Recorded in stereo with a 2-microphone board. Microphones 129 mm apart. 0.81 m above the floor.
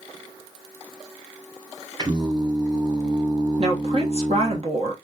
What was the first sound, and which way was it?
Singing, 35° right (ahead or behind).